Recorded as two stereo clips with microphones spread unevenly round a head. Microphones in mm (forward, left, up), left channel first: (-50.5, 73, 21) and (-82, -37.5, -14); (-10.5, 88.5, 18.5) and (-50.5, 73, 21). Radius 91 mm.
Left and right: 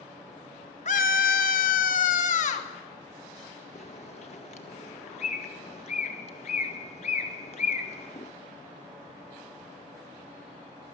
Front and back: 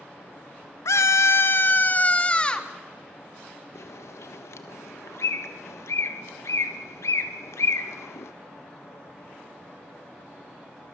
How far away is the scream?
About 1.3 m.